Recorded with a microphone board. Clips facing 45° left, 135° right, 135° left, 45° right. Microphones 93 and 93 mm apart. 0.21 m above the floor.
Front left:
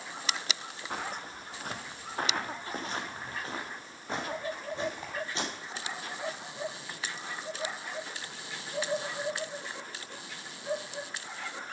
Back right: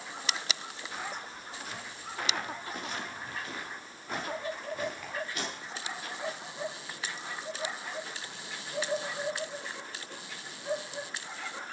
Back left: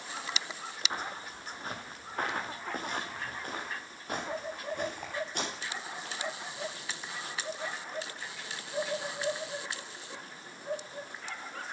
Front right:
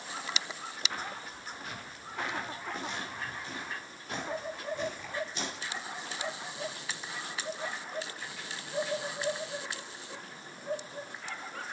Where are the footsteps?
70° left, 1.4 m; by 6.2 s 110° left, 5 m.